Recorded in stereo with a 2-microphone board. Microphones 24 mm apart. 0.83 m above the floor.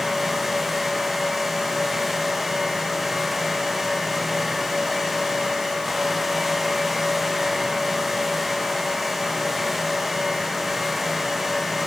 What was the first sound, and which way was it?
Only background noise.